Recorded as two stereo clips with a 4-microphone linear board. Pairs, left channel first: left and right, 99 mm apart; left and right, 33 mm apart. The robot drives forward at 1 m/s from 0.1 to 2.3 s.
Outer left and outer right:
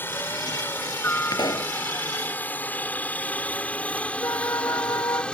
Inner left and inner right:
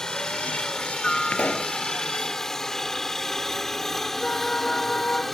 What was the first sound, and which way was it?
A helicopter, 20° left (ahead or behind).